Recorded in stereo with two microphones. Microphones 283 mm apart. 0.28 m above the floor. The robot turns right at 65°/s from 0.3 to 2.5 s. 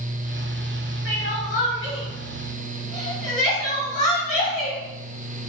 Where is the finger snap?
No finger snap in this recording.